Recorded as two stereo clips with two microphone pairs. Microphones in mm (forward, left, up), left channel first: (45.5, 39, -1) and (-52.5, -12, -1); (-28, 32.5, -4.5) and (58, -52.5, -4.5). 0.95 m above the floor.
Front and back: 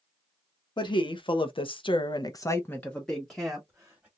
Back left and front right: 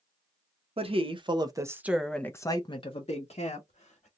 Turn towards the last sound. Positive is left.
turn(degrees=125)